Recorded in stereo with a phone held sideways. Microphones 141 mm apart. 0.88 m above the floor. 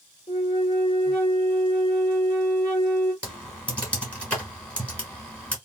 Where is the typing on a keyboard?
10° left (ahead or behind), 1.5 m.